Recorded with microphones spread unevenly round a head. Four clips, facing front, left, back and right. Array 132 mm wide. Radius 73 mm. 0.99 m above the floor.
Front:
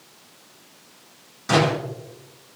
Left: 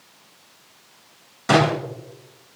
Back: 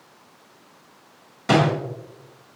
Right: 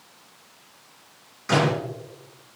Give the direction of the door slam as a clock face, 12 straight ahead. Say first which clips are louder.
Left 4 dB, back 1 dB; 7 o'clock.